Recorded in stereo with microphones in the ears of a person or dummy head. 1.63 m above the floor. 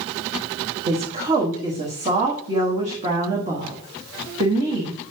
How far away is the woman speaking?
About 1.5 m.